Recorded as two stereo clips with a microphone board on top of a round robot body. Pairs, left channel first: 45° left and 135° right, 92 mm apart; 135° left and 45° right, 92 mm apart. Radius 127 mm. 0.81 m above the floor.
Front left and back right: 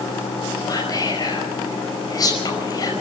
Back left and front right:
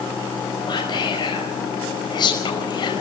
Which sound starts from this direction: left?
Whispering, at 0.7 s.